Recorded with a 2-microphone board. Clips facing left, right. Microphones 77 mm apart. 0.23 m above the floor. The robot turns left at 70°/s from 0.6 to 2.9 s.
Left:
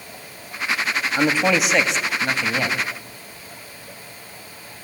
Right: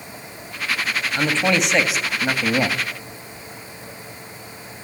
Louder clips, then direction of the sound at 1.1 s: Left 1 dB; 10° left (ahead or behind).